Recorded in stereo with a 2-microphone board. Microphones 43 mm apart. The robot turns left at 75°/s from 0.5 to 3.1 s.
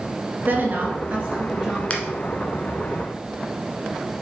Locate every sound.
0.5 s a woman speaking: 90° right, 2 m; by 1.8 s 170° left, 2 m
1.9 s a finger snap: 30° left (ahead or behind), 1.3 m; by 2.0 s 35° left (ahead or behind), 1.3 m